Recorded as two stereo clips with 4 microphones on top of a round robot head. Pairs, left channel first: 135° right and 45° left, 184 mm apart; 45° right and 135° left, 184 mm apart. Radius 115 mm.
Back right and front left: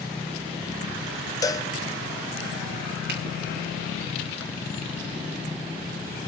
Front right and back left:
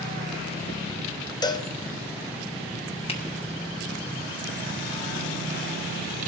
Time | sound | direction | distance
1.4 | a cowbell | 85° right | 0.8 m
3.1 | a finger snap | 15° left | 2 m